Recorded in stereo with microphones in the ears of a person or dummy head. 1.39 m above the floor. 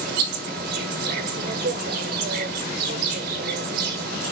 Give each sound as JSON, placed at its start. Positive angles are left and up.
{"t": 0.0, "sound": "an insect", "side_deg": -55, "distance_m": 1.6}